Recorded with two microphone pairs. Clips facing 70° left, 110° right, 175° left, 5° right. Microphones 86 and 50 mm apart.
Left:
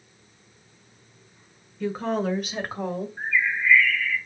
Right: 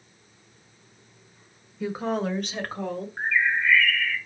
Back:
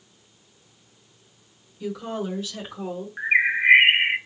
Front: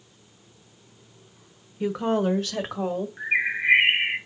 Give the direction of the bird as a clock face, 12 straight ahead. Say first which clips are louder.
Right 3 dB, back 6 dB; 4 o'clock.